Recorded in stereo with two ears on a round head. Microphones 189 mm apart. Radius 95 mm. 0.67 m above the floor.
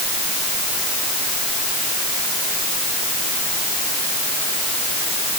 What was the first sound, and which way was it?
Only background noise.